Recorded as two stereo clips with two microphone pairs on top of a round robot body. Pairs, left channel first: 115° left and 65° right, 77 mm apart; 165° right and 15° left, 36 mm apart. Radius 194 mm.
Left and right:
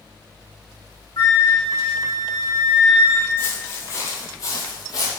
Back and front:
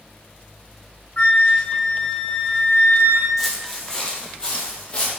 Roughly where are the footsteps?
Left.